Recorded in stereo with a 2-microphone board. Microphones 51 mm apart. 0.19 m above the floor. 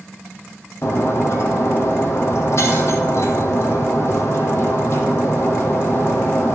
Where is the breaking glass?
60° left (ahead or behind), 2.5 m.